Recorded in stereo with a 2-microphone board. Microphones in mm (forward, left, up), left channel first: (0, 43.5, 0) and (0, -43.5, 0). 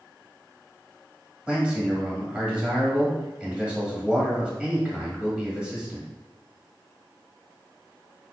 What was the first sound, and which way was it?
A man speaking, 10° right (ahead or behind).